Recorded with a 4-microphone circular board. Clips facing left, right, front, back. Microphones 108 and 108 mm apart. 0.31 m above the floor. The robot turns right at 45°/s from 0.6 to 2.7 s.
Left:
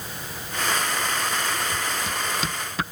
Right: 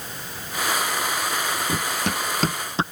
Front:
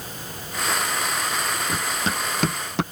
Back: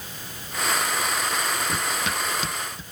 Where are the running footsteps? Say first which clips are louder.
Right 3 dB, front 1 dB; 80° right; by 2.8 s 25° right.